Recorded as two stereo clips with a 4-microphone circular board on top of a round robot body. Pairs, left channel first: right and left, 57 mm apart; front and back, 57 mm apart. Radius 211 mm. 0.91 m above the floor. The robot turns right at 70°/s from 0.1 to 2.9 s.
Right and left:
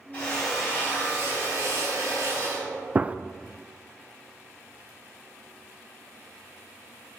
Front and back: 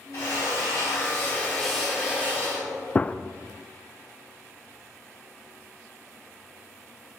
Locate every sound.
0.1 s a drill: 25° right, 4 m; by 2.9 s 165° left, 4 m
3.0 s a gunshot: 45° left, 0.5 m